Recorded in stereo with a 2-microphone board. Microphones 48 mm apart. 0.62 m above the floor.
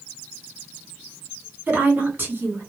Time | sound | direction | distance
1.7 | a woman speaking | 40° right (ahead or behind) | 2.0 m